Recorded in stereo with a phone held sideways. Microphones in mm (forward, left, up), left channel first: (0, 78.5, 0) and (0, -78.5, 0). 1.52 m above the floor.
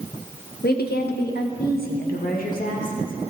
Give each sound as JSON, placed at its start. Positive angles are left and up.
{"t": 0.6, "sound": "a woman speaking", "side_deg": 85, "distance_m": 1.3}